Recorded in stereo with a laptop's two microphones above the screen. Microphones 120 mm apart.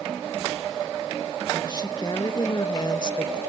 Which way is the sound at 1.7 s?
35° left (ahead or behind).